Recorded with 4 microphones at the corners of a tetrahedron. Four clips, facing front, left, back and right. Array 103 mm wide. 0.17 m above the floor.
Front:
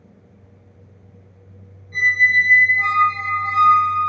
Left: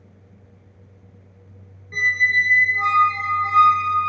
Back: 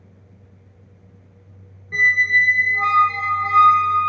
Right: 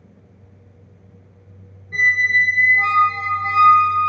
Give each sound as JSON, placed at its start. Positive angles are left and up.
{"t": 1.9, "sound": "a squeak", "azimuth_deg": -160, "distance_m": 0.9}